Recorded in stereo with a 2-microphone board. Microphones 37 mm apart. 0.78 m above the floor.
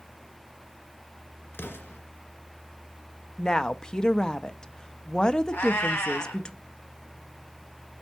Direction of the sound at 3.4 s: 20° left (ahead or behind).